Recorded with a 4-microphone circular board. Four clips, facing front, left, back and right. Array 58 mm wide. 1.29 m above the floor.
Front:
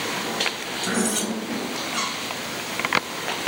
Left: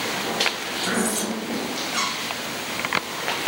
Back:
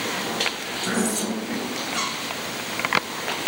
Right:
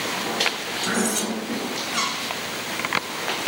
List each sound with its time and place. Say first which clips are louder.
0.8 s cutlery clinking: even, even; 40° right, 8.5 m